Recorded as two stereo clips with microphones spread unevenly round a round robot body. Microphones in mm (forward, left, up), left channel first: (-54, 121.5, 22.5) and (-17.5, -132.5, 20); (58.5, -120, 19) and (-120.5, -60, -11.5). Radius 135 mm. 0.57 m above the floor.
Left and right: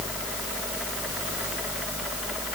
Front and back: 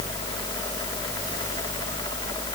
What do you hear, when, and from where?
Only background noise.